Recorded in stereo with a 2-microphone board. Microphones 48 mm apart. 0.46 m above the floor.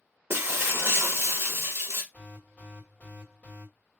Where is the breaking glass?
55° right (ahead or behind), 0.6 m.